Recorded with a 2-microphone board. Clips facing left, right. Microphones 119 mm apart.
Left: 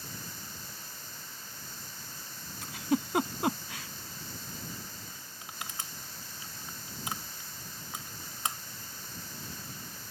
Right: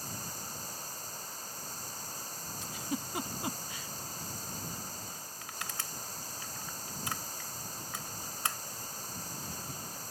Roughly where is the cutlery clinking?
No cutlery clinking in this recording.